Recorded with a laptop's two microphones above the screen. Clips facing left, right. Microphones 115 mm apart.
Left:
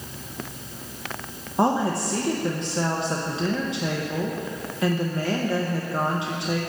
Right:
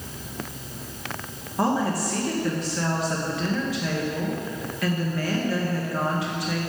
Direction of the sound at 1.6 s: 25° left (ahead or behind).